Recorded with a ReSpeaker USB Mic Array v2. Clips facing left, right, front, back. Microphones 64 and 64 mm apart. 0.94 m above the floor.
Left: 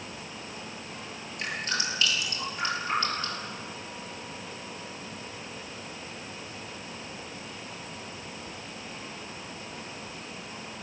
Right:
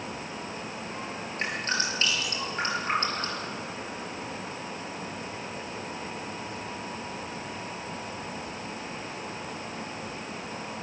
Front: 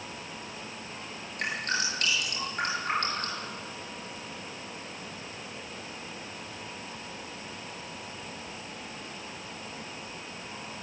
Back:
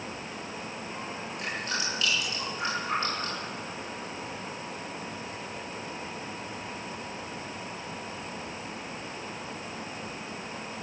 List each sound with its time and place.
1.4 s dripping: 35° right, 8.5 m